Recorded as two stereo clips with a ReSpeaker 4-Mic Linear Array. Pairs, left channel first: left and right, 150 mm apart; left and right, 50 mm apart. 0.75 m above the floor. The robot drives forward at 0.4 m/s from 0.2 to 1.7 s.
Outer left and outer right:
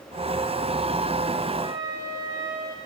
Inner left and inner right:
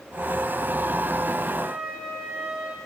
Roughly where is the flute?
Right.